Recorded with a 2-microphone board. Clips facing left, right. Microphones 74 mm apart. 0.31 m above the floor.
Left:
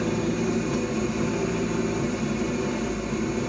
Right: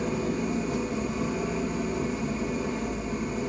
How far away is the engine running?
About 5.5 m.